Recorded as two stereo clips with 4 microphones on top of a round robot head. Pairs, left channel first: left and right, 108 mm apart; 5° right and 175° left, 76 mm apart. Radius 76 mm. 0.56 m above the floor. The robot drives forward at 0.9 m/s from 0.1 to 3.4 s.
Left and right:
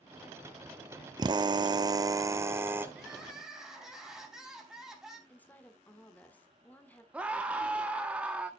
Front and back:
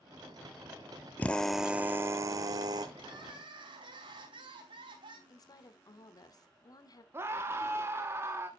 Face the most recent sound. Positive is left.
turn(degrees=-160)